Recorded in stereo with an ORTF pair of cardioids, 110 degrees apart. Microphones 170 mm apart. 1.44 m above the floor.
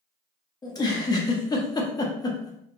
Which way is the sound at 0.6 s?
25° left.